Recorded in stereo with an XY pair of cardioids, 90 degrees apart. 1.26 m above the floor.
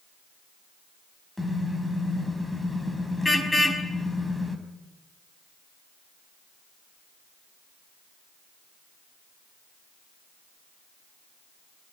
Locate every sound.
1.4 s a car horn: 15° left, 4.5 m